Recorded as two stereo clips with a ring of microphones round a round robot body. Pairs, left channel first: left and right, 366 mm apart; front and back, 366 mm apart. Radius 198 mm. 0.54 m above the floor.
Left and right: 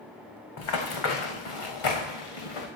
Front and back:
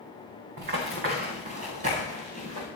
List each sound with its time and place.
0.6 s running footsteps: 115° left, 2.5 m; by 2.7 s 105° left, 4 m